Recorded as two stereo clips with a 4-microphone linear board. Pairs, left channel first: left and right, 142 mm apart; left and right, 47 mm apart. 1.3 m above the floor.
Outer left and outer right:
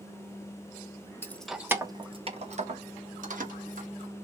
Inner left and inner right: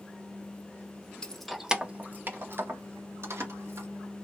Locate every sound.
1.2 s keys jangling: 15° left (ahead or behind), 0.5 m; by 3.9 s 75° right (ahead or behind), 1.4 m